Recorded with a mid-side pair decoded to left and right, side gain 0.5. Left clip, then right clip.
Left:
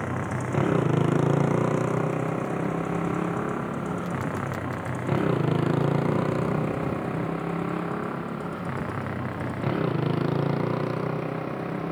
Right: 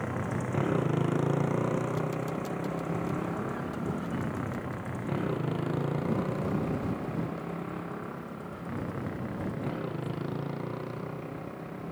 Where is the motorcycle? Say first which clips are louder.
Left 4 dB; 35° left; by 11.9 s 60° left.